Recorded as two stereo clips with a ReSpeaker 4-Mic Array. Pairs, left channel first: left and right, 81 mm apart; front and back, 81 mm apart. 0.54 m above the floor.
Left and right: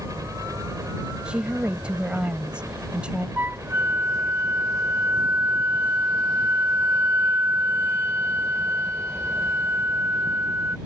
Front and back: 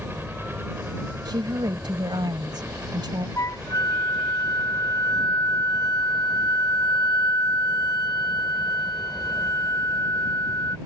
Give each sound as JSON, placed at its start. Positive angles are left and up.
{"t": 0.0, "sound": "a helicopter", "azimuth_deg": -120}
{"t": 1.2, "sound": "a woman speaking", "azimuth_deg": -165}
{"t": 3.4, "sound": "a flute", "azimuth_deg": -35}